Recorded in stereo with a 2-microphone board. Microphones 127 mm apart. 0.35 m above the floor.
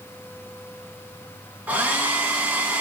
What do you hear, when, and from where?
1.7 s a hair dryer: 15° right (ahead or behind), 1.2 m